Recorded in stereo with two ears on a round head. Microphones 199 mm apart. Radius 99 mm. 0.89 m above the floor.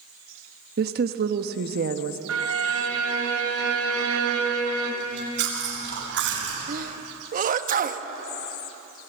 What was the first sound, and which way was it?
A woman speaking, 45° right (ahead or behind).